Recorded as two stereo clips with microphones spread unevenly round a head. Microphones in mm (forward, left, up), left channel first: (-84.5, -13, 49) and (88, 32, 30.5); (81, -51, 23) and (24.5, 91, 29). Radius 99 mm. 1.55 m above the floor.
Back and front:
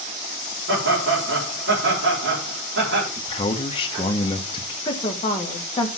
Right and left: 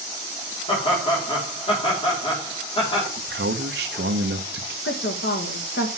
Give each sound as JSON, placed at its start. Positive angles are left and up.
{"t": 0.7, "sound": "laughter", "azimuth_deg": -15, "distance_m": 4.5}
{"t": 3.2, "sound": "a man speaking", "azimuth_deg": 135, "distance_m": 1.0}
{"t": 4.8, "sound": "a woman speaking", "azimuth_deg": -100, "distance_m": 2.0}